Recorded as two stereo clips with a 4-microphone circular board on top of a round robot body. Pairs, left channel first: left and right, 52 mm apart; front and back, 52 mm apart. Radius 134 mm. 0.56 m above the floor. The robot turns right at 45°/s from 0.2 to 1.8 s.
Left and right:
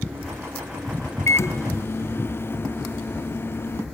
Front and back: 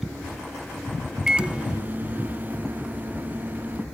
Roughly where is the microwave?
Left.